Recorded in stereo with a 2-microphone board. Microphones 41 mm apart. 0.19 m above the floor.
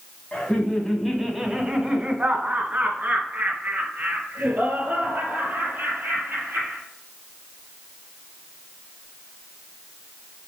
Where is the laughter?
25° left (ahead or behind), 1.5 m; by 6.8 s 55° right (ahead or behind), 6 m.